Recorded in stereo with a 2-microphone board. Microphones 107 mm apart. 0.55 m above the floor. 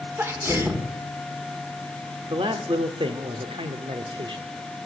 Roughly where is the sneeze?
Right.